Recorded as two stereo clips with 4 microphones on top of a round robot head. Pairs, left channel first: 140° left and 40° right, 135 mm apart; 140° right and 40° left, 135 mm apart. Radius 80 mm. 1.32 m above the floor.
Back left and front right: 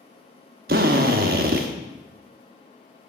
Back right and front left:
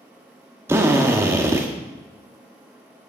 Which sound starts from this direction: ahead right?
A drill, at 0.7 s.